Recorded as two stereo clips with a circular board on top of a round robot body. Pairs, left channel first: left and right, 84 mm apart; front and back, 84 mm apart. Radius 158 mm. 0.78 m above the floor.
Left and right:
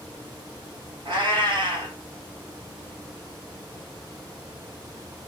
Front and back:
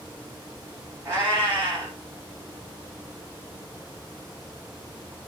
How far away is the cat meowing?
About 1.9 m.